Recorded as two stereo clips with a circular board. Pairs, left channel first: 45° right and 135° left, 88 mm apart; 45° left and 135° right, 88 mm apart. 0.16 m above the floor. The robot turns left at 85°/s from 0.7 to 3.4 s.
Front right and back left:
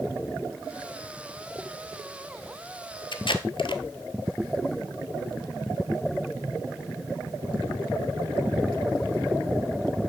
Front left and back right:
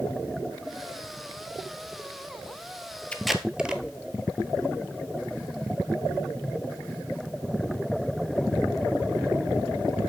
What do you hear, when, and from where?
3.1 s tape being pulled: 30° right, 0.8 m; by 3.8 s 55° right, 0.8 m